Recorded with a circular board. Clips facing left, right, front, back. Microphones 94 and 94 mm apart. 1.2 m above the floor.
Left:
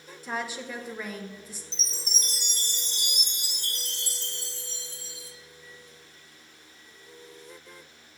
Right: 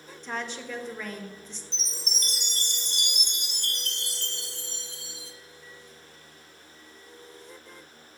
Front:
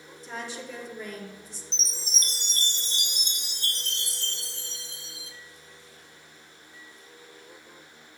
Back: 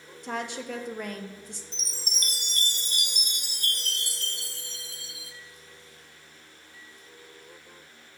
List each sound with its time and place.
0.2 s a woman speaking: 170° left, 0.7 m
1.7 s a chime: 65° right, 0.6 m